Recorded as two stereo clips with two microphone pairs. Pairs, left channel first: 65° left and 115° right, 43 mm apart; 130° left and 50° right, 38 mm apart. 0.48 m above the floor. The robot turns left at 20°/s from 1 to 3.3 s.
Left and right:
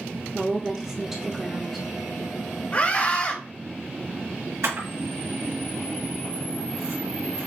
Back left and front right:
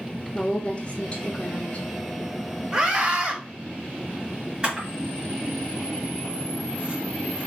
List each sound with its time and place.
0.3 s a woman speaking: 165° left, 1.0 m; by 1.9 s 145° left, 1.0 m
2.7 s a scream: 20° left, 2.5 m; by 3.4 s 10° left, 2.5 m
4.6 s a camera shutter: 120° right, 3.5 m